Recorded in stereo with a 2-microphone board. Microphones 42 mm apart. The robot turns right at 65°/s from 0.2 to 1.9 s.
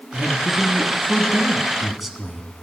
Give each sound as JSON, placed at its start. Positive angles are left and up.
{"t": 0.1, "sound": "a man speaking", "azimuth_deg": -115, "distance_m": 1.6}